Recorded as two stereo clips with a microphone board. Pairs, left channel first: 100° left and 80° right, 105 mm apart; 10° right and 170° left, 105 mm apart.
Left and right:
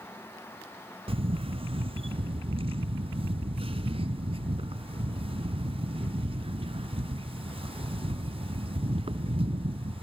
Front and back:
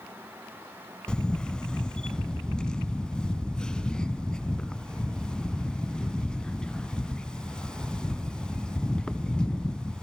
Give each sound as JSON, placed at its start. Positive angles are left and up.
{"t": 1.1, "sound": "a camera shutter", "azimuth_deg": -95, "distance_m": 1.0}